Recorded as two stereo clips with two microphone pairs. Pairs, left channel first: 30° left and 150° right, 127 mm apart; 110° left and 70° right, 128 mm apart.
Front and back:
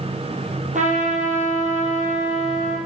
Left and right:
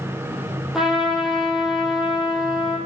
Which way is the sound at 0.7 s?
160° right.